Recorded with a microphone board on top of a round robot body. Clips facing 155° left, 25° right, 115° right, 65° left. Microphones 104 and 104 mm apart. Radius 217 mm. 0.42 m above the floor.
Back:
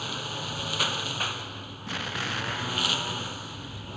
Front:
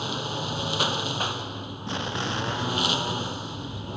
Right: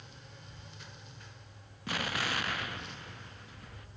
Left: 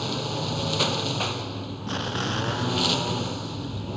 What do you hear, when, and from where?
0.0 s a lawn mower: 45° left
1.9 s an explosion: 25° left